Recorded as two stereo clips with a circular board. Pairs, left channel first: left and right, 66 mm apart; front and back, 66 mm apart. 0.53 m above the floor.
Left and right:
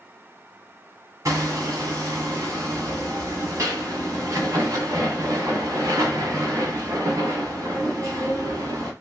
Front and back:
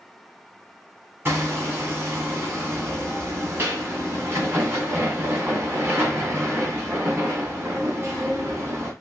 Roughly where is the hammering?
Behind right.